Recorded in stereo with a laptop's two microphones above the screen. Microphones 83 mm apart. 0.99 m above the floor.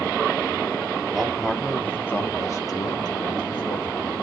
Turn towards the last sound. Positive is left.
turn(degrees=65)  # may be behind; listen again after turning